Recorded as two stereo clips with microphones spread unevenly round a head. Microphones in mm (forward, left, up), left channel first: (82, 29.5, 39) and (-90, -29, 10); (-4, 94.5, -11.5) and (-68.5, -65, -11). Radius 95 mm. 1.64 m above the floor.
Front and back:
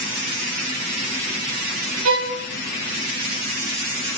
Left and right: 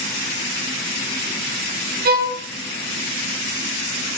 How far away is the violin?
About 1.2 m.